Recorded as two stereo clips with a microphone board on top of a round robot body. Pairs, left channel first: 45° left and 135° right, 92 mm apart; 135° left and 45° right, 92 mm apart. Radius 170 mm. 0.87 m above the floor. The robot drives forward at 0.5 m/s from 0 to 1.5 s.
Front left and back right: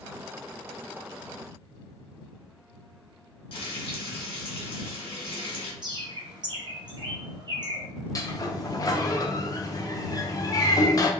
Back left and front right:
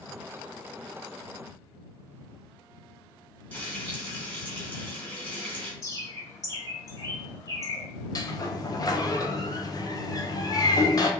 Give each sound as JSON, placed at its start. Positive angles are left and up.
{"t": 3.5, "sound": "frying", "azimuth_deg": 60, "distance_m": 1.4}
{"t": 5.8, "sound": "a bird", "azimuth_deg": -175, "distance_m": 1.2}
{"t": 8.2, "sound": "a sliding door", "azimuth_deg": 90, "distance_m": 0.7}